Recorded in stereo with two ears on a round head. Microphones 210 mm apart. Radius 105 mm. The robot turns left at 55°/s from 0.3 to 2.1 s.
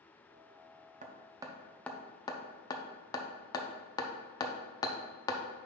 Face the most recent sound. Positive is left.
turn(degrees=15)  # may be behind; listen again after turning